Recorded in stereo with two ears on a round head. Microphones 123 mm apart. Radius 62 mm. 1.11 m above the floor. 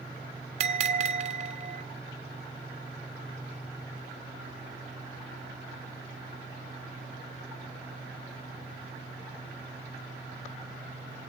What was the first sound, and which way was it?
A bell, 50° right (ahead or behind).